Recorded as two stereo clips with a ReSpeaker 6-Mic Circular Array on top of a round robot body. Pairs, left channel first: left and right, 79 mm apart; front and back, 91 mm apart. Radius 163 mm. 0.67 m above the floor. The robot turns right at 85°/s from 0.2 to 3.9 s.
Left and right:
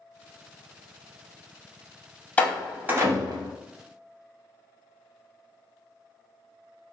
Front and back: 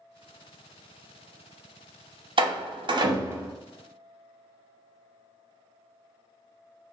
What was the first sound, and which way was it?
A door slam, 160° left.